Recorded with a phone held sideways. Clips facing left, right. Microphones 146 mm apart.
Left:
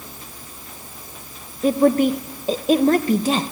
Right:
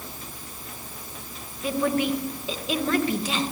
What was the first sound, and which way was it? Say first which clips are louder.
A woman speaking: left 8 dB; 40° left (ahead or behind).